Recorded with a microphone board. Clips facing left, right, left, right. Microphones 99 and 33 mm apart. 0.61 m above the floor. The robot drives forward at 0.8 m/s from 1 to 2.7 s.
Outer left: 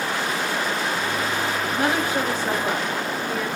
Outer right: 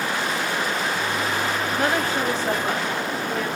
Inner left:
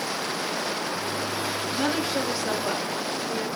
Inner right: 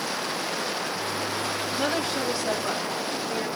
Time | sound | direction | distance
1.8 | a woman speaking | 15° left (ahead or behind) | 2.0 m